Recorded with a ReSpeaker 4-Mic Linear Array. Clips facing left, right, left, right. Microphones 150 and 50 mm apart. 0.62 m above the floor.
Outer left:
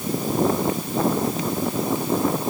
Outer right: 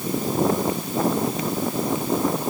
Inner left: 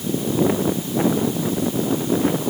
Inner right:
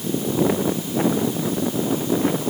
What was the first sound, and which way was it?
Only background noise.